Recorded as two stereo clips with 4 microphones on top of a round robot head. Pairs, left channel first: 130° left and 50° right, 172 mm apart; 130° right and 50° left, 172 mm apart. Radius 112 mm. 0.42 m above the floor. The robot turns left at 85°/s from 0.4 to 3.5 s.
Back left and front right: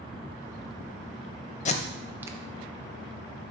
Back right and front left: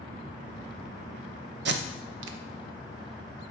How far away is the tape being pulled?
About 0.5 m.